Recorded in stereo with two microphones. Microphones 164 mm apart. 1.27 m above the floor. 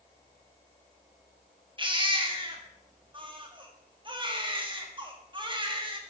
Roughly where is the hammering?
No hammering in this recording.